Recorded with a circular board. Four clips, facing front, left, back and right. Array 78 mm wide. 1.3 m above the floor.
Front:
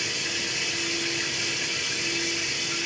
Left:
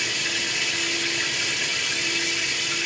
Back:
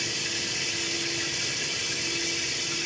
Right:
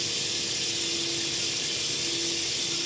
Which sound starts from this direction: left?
Running water, at 0.0 s.